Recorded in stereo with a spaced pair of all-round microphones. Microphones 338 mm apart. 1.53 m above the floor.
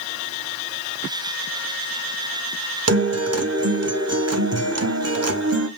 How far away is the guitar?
About 0.8 m.